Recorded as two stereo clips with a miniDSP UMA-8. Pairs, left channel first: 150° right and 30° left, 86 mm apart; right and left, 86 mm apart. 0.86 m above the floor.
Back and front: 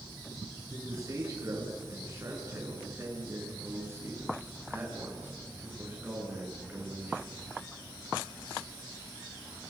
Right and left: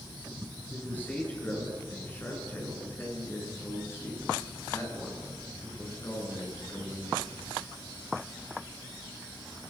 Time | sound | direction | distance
0.7 | a man speaking | 20° right | 9 m